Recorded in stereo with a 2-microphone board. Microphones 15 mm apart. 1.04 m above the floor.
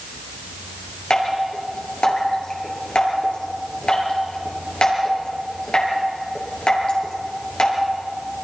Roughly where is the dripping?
Left.